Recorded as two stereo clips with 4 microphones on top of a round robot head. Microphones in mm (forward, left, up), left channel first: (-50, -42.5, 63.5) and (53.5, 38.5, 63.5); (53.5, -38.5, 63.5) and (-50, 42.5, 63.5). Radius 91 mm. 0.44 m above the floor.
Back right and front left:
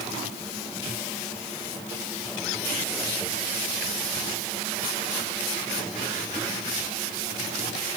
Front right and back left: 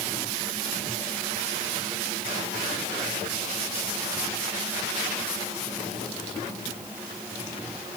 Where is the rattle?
No rattle in this recording.